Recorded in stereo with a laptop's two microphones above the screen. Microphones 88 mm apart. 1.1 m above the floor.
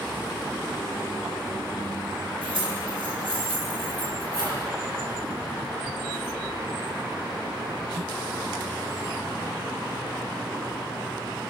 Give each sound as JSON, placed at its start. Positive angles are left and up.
{"t": 2.4, "sound": "keys jangling", "side_deg": -65, "distance_m": 7.0}